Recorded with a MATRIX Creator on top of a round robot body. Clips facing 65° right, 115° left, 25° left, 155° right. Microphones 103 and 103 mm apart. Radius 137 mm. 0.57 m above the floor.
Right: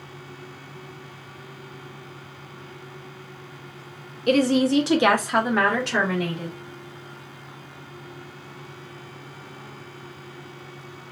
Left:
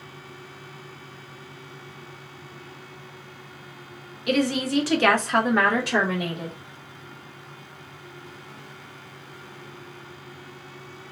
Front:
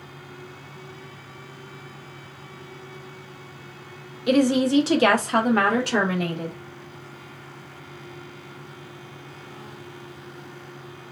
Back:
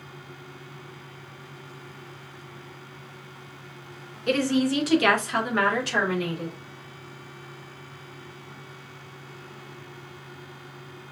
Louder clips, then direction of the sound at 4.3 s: Right 5 dB, front 4 dB; 55° right.